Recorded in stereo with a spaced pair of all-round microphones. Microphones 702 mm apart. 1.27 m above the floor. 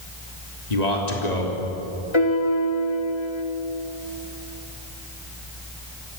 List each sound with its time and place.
0.7 s a man speaking: 70° left (ahead or behind), 3 m
2.1 s a piano: 40° left (ahead or behind), 1.8 m